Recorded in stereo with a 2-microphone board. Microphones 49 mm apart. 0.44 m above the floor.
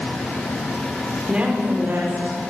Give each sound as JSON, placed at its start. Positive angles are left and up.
{"t": 1.3, "sound": "a woman speaking", "side_deg": -20, "distance_m": 1.1}